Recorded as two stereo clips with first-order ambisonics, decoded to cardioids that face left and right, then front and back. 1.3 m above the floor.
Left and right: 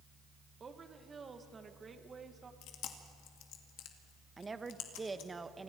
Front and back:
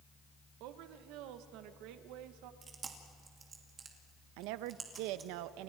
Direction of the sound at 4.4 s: 170° right.